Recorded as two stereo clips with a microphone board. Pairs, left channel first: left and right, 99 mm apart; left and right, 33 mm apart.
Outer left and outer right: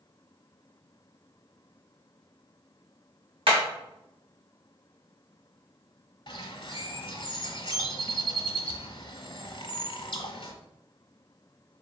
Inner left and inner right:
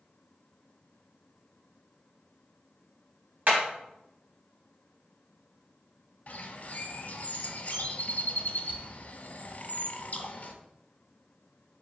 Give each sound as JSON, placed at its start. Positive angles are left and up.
{"t": 3.5, "sound": "hammering", "side_deg": -60, "distance_m": 3.0}
{"t": 6.3, "sound": "a bird", "side_deg": 55, "distance_m": 1.0}